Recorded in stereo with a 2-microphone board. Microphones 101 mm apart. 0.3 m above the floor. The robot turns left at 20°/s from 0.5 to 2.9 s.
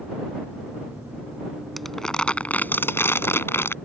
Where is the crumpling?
Centre (ahead or behind); by 3.8 s 20° left (ahead or behind).